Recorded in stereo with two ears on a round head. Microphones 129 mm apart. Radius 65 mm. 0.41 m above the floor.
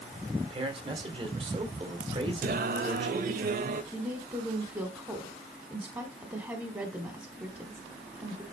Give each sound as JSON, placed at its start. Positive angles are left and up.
{"t": 0.4, "sound": "a man speaking", "side_deg": -35, "distance_m": 1.6}
{"t": 2.4, "sound": "singing", "side_deg": -60, "distance_m": 0.6}
{"t": 3.9, "sound": "a woman speaking", "side_deg": -15, "distance_m": 1.2}